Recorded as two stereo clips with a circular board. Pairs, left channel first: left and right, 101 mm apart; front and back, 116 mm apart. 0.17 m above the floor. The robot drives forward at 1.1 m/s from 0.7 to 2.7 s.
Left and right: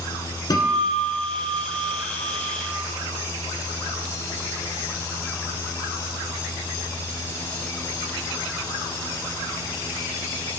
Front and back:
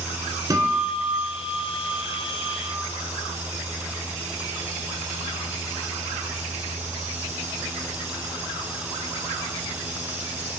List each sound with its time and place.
0.5 s a guitar: 130° left, 1.8 m; by 2.8 s 160° left, 3.5 m